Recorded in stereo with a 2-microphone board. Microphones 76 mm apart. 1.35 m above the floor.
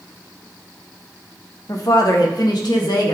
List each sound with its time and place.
1.7 s a woman speaking: 50° left (ahead or behind), 1.1 m; by 3.1 s 70° left (ahead or behind), 1.7 m